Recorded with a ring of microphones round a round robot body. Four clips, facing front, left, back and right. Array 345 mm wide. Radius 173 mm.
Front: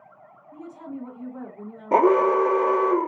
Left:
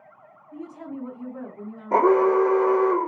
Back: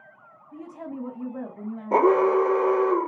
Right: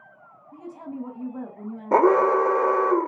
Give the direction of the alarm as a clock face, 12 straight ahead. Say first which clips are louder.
Even, front 1 dB; 2 o'clock.